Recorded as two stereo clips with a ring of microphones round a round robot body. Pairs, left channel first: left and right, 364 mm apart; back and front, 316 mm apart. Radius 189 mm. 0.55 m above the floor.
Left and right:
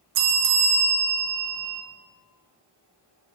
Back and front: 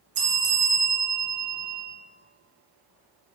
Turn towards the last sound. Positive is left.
turn(degrees=-65)